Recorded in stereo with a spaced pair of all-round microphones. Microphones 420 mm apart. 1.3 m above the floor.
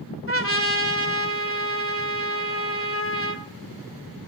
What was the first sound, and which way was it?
A trumpet, 30° left (ahead or behind).